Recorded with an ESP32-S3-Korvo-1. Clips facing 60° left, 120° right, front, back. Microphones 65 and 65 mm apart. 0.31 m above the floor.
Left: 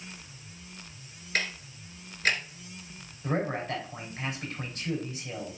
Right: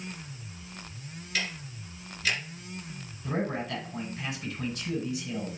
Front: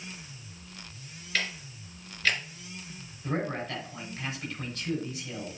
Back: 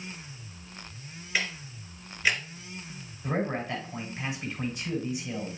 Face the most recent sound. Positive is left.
turn(degrees=105)